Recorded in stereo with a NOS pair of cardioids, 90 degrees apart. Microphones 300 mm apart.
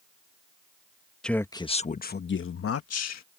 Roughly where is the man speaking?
Ahead.